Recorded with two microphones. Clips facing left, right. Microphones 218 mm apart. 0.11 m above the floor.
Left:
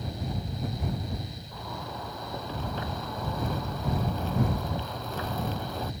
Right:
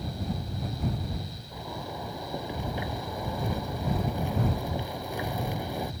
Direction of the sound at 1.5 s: 15° right (ahead or behind).